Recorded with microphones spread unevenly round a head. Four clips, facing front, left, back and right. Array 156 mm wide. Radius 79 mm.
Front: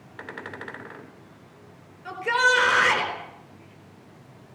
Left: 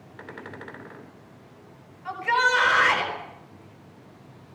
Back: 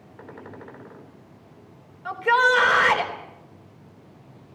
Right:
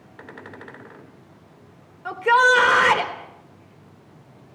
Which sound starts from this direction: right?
A shout, at 2.0 s.